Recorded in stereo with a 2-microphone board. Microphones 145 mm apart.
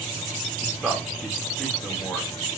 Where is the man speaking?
Centre (ahead or behind), 0.9 m.